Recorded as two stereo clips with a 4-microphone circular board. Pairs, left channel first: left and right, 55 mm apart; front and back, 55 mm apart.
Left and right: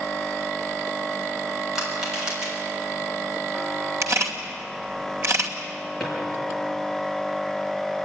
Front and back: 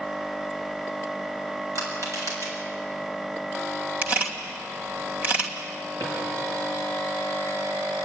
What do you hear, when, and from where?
1.8 s crushing: 170° right, 7 m
4.0 s a camera shutter: 125° right, 2.5 m
6.0 s a drawer: straight behind, 6.5 m